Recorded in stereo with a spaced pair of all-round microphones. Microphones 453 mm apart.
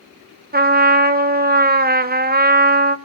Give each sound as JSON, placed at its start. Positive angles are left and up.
{"t": 0.5, "sound": "a trumpet", "side_deg": -20, "distance_m": 0.8}